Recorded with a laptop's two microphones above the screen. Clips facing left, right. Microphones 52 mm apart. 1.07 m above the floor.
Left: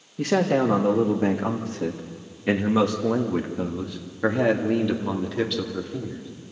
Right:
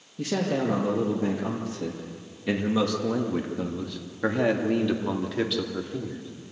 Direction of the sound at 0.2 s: 70° left (ahead or behind).